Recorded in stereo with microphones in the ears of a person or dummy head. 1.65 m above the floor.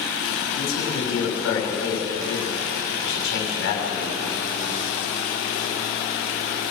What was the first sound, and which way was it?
A man speaking, 70° left (ahead or behind).